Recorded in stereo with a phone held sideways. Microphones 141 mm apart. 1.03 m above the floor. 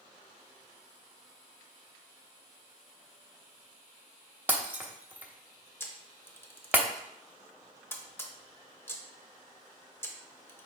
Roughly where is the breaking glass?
Centre.